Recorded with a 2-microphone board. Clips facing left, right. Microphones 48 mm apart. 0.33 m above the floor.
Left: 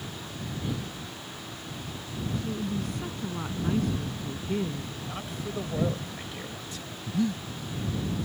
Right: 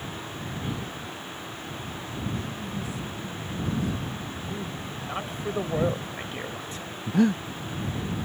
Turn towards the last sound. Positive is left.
turn(degrees=-75)  # may be behind; listen again after turning